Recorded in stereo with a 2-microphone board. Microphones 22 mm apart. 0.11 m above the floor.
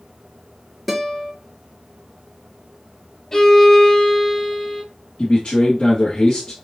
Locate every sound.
0.9 s a guitar: 5° left (ahead or behind), 1.5 m
3.3 s a violin: 25° left (ahead or behind), 1.7 m
5.2 s a man speaking: 45° left (ahead or behind), 2 m